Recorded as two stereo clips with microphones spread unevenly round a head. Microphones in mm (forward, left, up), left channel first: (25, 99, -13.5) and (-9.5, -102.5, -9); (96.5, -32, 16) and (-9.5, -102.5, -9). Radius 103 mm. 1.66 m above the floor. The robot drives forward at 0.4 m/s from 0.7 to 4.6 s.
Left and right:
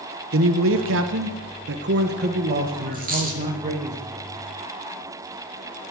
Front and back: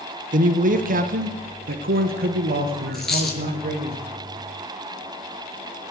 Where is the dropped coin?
50° right, 5 m.